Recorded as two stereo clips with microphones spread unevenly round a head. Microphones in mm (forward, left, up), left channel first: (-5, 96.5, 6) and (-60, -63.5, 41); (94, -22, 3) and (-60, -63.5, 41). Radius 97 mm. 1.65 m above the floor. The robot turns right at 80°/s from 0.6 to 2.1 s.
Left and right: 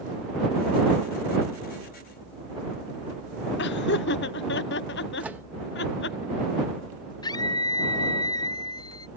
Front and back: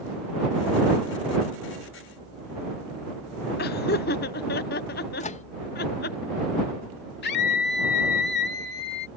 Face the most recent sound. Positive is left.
turn(degrees=0)